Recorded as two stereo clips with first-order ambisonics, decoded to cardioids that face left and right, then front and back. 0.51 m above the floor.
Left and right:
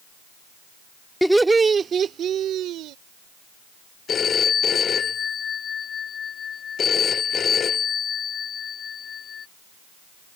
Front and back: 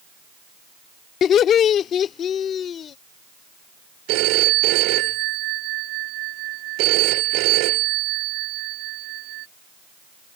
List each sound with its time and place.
1.2 s laughter: straight ahead; by 3.0 s 55° right
4.1 s a phone ringing: 155° left